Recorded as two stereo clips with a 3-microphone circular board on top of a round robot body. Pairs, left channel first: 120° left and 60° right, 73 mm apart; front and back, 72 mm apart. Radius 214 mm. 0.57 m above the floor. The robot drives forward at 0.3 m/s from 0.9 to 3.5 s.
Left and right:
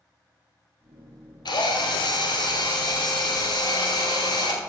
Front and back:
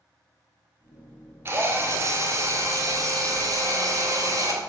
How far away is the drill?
About 1.7 m.